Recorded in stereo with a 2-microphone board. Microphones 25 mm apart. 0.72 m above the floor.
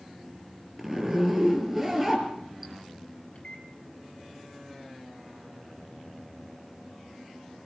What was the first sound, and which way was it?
A zipper, 10° right (ahead or behind).